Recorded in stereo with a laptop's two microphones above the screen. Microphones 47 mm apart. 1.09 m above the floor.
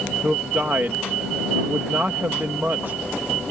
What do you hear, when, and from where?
0.2 s a man speaking: 50° right (ahead or behind)